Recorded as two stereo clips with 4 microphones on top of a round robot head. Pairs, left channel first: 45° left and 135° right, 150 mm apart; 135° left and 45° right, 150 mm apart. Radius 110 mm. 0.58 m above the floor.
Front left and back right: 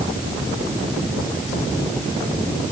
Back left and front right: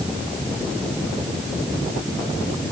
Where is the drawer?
I don't hear a drawer.